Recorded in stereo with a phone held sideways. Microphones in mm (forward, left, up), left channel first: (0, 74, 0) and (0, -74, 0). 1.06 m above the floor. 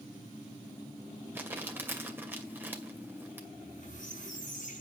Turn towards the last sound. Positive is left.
turn(degrees=60)  # may be behind; listen again after turning